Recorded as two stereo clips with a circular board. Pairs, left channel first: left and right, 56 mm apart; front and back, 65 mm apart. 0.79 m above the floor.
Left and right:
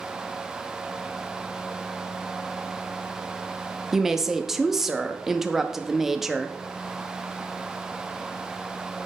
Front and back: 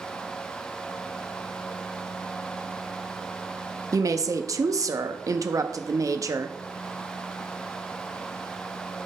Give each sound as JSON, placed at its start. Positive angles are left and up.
{"t": 3.9, "sound": "a woman speaking", "azimuth_deg": -175, "distance_m": 0.7}